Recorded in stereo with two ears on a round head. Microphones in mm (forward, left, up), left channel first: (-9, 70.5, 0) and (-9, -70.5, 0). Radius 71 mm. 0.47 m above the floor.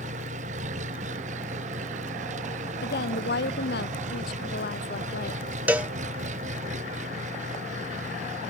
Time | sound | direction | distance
0.0 | an engine running | 45° right (ahead or behind) | ?
2.8 | a woman speaking | 70° left (ahead or behind) | ?
5.7 | a cowbell | 10° right (ahead or behind) | ?